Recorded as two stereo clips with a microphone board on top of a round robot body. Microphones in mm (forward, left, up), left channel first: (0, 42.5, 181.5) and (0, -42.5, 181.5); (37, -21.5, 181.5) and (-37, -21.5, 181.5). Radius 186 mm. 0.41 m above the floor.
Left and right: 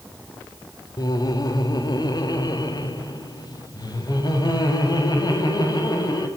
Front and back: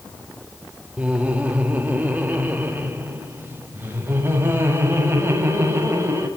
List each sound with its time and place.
1.0 s laughter: 110° left, 2.5 m; by 6.3 s 120° left, 5.5 m